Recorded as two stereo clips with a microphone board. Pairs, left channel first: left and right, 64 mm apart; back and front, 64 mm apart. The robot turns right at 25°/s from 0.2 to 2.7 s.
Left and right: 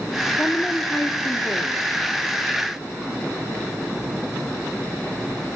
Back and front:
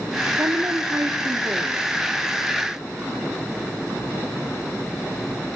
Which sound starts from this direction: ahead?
A woman speaking, at 0.4 s.